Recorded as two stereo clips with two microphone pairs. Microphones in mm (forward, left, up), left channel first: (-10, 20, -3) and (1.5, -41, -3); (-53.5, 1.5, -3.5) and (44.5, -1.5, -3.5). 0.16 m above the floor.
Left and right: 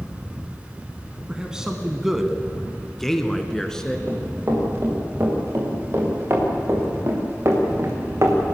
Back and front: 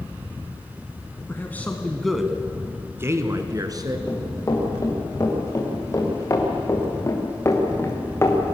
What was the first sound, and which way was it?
A man speaking, 140° right.